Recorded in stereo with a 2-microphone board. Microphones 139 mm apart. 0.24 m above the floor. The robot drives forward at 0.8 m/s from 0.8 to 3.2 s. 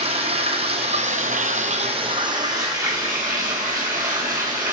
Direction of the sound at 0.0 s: 45° right (ahead or behind).